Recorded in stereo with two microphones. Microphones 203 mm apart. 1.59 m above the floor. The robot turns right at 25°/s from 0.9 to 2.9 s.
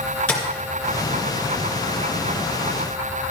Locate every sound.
0.3 s tapping: 5° left (ahead or behind), 2.5 m